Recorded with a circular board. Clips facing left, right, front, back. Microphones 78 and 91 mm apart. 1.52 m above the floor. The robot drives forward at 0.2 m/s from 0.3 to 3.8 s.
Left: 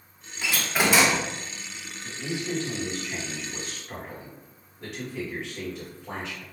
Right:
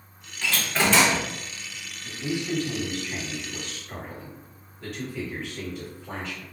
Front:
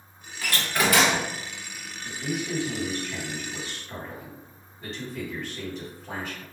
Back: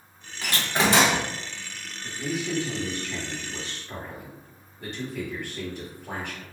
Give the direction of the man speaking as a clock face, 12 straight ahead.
7 o'clock.